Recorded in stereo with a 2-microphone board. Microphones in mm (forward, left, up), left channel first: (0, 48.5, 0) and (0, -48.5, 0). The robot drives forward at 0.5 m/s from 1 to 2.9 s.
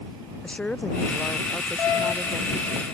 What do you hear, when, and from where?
0.4 s a woman speaking: 10° left (ahead or behind)